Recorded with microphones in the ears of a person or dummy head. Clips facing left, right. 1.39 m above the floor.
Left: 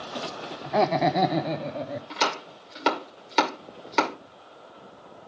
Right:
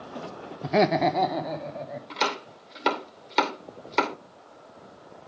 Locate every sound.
0.6 s laughter: 40° right (ahead or behind), 0.5 m; by 2.0 s 50° left (ahead or behind), 1.2 m
2.1 s chopping: 5° left (ahead or behind), 2 m